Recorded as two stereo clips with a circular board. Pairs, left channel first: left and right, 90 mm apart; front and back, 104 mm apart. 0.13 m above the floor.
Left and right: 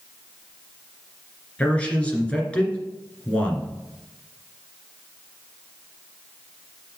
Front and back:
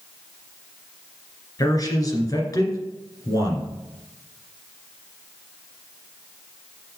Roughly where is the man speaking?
Ahead.